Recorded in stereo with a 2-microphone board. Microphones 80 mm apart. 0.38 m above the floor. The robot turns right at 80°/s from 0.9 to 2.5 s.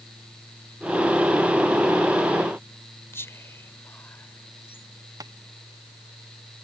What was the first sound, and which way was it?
Whispering, 35° left (ahead or behind).